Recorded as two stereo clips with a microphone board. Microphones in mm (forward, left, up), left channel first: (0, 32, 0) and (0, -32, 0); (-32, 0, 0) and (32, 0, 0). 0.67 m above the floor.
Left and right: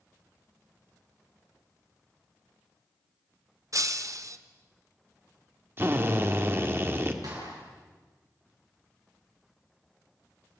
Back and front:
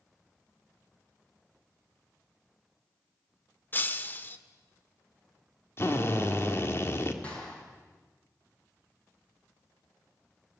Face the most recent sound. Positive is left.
turn(degrees=-110)